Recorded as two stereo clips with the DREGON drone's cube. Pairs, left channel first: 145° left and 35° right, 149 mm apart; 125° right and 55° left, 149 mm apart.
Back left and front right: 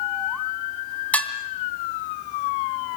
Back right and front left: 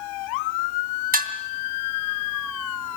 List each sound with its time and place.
1.1 s dishes clattering: 65° left, 2.5 m